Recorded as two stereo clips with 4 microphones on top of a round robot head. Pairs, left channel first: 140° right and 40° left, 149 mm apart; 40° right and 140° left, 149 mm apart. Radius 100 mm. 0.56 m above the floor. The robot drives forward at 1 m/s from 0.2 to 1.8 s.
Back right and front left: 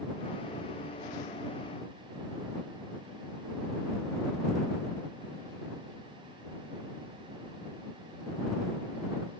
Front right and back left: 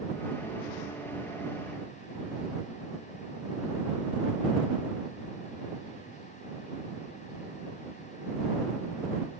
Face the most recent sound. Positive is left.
No sound to turn to.